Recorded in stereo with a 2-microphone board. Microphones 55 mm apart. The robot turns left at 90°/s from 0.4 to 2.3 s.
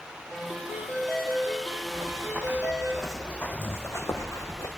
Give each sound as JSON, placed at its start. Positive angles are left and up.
{"t": 0.3, "sound": "a ringtone", "azimuth_deg": -75, "distance_m": 4.0}
{"t": 1.9, "sound": "running footsteps", "side_deg": -65, "distance_m": 1.3}